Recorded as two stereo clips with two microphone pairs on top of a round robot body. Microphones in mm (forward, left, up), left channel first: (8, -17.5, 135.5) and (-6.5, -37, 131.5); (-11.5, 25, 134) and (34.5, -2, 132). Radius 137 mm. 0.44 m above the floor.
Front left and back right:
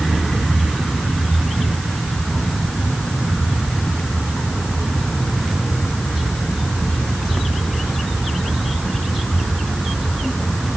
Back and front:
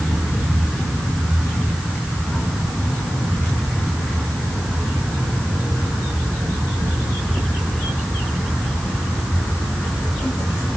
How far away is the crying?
No crying in this recording.